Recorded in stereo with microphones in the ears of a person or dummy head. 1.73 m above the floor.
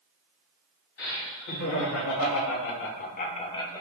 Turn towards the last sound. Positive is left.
turn(degrees=15)  # may be behind; listen again after turning